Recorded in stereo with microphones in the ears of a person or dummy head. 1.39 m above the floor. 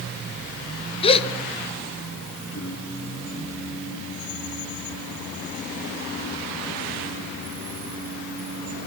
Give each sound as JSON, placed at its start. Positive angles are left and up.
{"t": 1.0, "sound": "a gasp", "side_deg": 30, "distance_m": 1.6}
{"t": 2.5, "sound": "singing", "side_deg": 70, "distance_m": 8.5}